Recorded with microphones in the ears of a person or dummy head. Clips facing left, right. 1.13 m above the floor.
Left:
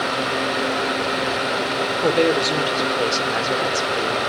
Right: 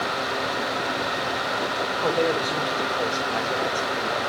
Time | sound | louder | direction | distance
2.0 | a woman speaking | left 5 dB | 30° left (ahead or behind) | 1.6 m